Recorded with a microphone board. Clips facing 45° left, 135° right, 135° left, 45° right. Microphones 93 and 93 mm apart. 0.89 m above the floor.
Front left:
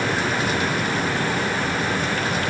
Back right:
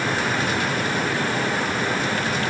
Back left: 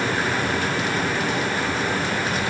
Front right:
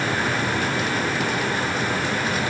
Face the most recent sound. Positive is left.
No sound to turn to.